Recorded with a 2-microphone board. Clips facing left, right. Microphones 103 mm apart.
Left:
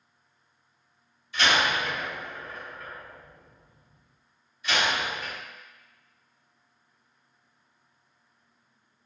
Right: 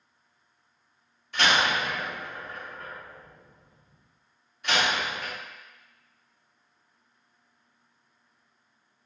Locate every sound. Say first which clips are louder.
1.3 s a door slam: even; 60° right (ahead or behind), 1.3 m